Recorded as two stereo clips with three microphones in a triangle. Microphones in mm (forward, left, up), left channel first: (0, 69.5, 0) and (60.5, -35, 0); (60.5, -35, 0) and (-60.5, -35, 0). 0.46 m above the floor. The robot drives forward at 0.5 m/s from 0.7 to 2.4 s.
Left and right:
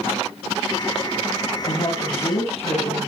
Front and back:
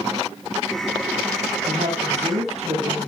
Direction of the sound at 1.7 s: 155° left.